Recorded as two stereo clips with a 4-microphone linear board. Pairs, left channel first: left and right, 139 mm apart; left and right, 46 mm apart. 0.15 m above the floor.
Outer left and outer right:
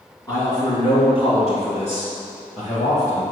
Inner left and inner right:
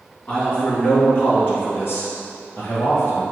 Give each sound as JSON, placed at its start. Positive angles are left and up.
{"t": 0.3, "sound": "a man speaking", "side_deg": 25, "distance_m": 1.3}